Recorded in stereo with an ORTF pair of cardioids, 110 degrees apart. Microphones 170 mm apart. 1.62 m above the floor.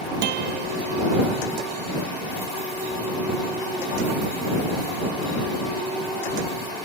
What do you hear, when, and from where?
0.2 s a guitar: 65° right